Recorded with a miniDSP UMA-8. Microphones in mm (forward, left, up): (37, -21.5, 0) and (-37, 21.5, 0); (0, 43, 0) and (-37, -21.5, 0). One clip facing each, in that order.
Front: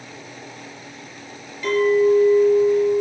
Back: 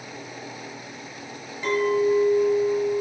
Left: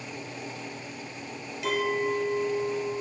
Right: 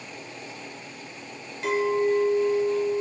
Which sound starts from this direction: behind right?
A clink, at 1.6 s.